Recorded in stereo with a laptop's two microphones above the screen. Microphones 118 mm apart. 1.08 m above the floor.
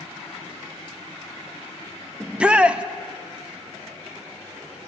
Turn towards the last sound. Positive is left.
turn(degrees=-10)  # may be behind; listen again after turning